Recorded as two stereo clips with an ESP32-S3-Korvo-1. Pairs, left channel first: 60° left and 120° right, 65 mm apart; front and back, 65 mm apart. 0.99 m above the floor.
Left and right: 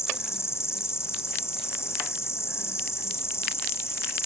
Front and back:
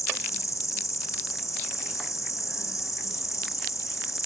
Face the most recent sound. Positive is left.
turn(degrees=25)